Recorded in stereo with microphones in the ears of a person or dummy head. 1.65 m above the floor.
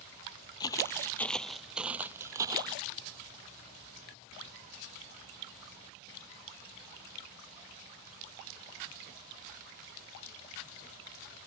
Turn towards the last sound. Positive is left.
turn(degrees=-25)  # may be behind; listen again after turning